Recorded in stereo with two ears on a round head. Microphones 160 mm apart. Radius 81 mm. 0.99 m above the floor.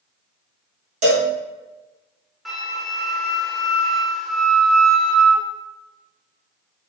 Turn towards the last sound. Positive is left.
turn(degrees=0)  # may be behind; listen again after turning